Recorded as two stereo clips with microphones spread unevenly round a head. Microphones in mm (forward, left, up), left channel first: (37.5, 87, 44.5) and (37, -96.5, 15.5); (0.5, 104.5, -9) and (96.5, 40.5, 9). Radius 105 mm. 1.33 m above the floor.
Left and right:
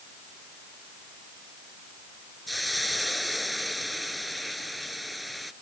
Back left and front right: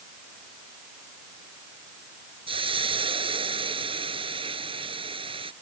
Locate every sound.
2.5 s a hiss: straight ahead